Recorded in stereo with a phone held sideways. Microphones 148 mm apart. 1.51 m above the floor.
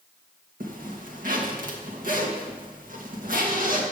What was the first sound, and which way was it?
A zipper, 65° right (ahead or behind).